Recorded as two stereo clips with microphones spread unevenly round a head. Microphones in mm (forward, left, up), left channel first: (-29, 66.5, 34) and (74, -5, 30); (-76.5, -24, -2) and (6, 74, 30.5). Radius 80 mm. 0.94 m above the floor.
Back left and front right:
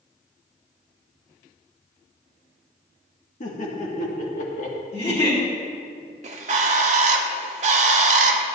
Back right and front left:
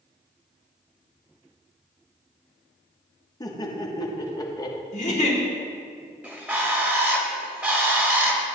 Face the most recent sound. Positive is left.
turn(degrees=-20)